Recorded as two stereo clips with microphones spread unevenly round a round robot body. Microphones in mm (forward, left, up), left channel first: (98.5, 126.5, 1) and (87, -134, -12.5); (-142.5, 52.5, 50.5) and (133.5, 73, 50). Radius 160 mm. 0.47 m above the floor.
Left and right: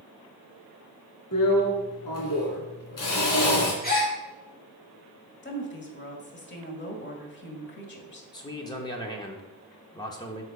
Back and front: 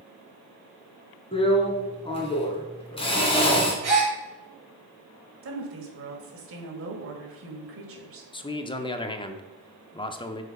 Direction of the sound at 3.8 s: 35° left.